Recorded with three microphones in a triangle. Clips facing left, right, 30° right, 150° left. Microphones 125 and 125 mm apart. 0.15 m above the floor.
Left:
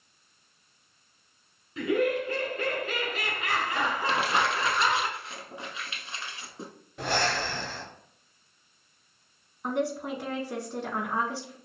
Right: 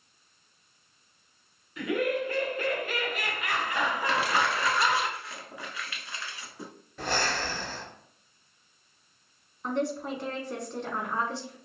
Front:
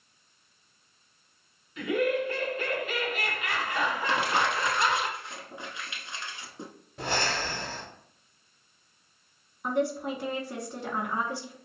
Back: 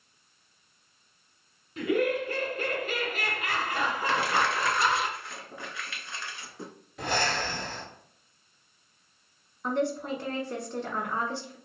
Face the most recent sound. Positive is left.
turn(degrees=25)